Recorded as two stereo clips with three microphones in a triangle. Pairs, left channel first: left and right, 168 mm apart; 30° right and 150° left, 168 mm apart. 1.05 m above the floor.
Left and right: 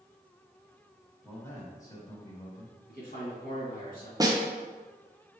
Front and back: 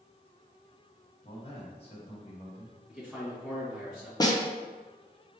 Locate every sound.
1.2 s a man speaking: 25° left, 1.2 m
2.9 s a man speaking: 65° left, 2.0 m
4.2 s a snare drum: 55° right, 0.6 m